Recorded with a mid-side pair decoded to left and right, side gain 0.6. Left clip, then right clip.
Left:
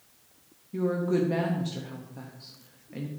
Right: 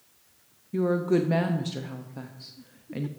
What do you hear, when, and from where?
0.7 s a woman speaking: 30° right, 0.8 m